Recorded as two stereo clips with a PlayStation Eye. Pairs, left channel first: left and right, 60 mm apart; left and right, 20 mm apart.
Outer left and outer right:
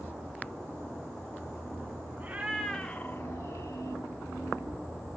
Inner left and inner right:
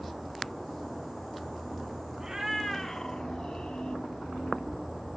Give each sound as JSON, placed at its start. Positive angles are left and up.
{"t": 2.2, "sound": "a cat meowing", "side_deg": -30, "distance_m": 0.7}